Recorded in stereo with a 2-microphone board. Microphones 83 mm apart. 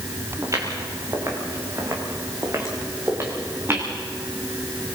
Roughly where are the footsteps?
Right.